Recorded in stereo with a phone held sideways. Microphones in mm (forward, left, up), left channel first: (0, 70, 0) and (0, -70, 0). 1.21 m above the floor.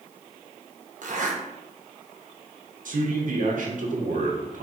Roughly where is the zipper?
Right.